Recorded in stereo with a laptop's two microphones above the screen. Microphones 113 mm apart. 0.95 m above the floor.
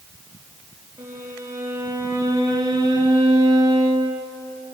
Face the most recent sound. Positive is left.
turn(degrees=-30)  # may be behind; listen again after turning